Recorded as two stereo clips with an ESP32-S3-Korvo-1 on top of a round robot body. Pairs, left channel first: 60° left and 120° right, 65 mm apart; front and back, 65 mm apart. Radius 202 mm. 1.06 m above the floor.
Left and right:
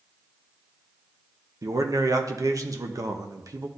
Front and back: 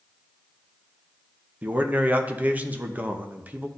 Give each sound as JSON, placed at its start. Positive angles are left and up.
{"t": 1.6, "sound": "a man speaking", "azimuth_deg": -120, "distance_m": 1.0}